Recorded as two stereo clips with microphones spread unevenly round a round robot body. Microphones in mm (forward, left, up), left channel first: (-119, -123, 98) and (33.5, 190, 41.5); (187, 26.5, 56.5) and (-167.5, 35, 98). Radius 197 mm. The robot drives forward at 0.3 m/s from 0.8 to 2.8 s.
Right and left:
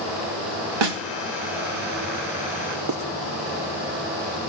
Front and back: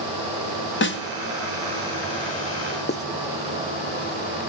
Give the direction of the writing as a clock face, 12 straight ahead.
10 o'clock.